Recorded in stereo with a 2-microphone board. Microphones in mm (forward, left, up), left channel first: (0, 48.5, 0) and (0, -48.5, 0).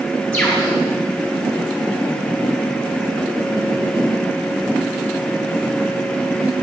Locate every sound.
0.3 s a bird: 10° left (ahead or behind), 3 m